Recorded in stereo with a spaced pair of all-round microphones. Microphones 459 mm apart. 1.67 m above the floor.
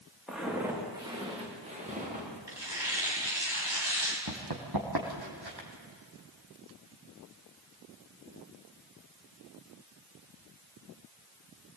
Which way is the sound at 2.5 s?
65° right (ahead or behind).